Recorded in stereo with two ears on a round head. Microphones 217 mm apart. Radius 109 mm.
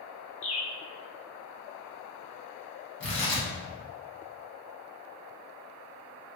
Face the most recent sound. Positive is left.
turn(degrees=50)  # may be behind; listen again after turning